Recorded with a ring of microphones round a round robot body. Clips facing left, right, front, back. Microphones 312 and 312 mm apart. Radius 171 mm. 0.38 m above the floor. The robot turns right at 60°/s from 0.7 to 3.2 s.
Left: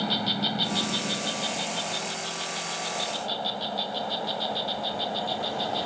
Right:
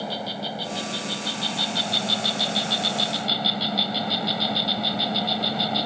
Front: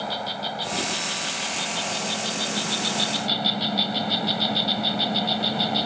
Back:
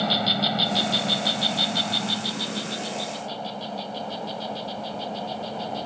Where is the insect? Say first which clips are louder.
Left 2 dB, back 6 dB; 160° left; by 5.9 s 50° right.